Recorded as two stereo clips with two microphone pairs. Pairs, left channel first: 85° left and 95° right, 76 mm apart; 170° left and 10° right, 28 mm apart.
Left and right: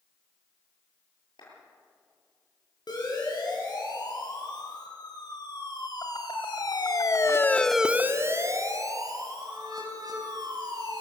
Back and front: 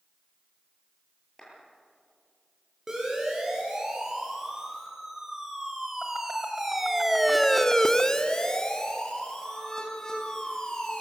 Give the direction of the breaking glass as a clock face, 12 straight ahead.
I don't hear breaking glass.